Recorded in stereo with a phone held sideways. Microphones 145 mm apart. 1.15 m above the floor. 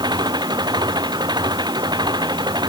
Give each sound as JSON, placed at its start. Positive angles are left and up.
{"t": 0.0, "sound": "an engine running", "side_deg": -30}